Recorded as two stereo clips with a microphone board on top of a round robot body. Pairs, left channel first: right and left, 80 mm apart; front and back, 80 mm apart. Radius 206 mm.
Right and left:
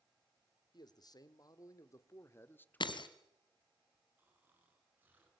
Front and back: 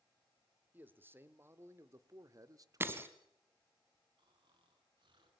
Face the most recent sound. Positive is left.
turn(degrees=155)